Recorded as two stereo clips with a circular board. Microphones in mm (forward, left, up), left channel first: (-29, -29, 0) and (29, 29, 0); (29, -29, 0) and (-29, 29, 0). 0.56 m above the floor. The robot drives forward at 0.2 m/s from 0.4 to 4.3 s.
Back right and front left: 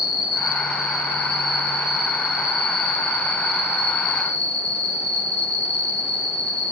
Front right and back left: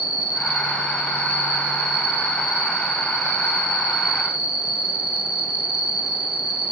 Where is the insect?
70° left, 1.4 m; by 6.7 s 105° left, 1.4 m.